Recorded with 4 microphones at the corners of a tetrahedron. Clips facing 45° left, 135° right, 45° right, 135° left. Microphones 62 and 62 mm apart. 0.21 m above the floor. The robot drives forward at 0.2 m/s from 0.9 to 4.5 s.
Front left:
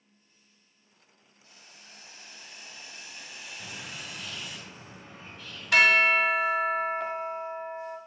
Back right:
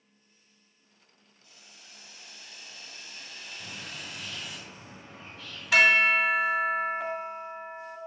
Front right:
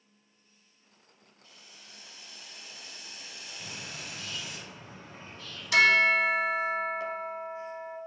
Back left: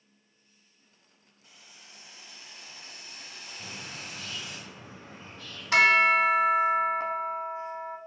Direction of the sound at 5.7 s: 140° left.